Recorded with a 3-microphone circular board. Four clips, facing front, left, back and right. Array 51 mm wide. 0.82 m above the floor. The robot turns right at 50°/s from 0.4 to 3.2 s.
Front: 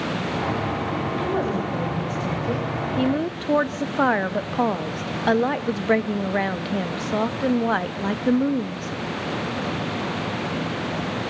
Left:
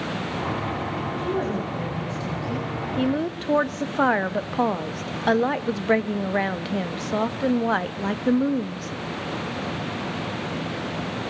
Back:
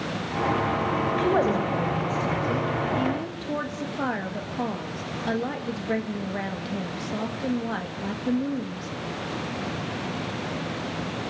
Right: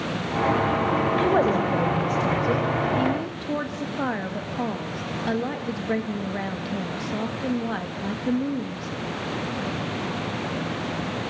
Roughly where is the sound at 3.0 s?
Ahead left.